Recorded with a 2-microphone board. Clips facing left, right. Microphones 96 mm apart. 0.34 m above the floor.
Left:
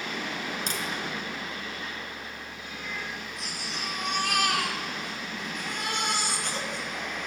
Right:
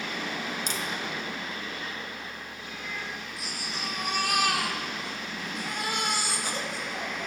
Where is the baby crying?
10° right (ahead or behind), 6 m.